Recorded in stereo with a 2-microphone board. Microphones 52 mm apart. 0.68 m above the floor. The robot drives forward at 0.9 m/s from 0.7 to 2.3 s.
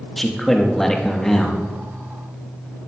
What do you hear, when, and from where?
0.2 s a man speaking: 10° left (ahead or behind), 0.9 m